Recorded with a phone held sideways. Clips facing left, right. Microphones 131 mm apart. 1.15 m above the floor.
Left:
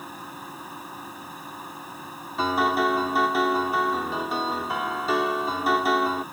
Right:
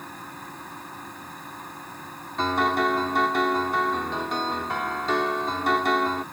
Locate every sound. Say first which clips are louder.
0.0 s a machine running: left 1 dB; 10° left (ahead or behind)
2.4 s a piano: left 1 dB; 5° left (ahead or behind)